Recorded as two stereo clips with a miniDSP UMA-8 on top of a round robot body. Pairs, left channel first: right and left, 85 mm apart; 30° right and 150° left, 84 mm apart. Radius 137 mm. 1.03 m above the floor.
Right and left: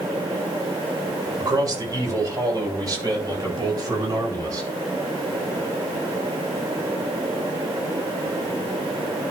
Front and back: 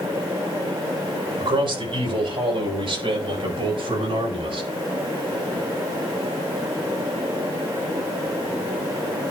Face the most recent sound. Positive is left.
turn(degrees=140)